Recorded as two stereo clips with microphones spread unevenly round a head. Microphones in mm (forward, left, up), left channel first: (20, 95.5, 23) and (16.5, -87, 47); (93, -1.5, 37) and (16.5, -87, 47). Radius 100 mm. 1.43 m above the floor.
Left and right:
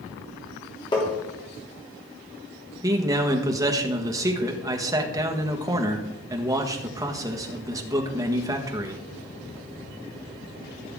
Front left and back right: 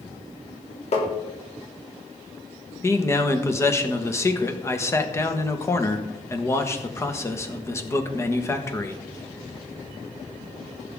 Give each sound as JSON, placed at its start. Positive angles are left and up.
{"t": 0.9, "sound": "tapping", "azimuth_deg": 20, "distance_m": 3.0}
{"t": 2.8, "sound": "a man speaking", "azimuth_deg": -20, "distance_m": 1.5}